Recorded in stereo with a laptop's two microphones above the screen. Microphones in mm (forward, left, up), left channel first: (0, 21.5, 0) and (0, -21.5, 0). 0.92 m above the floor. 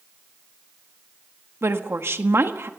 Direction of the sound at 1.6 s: 65° right (ahead or behind).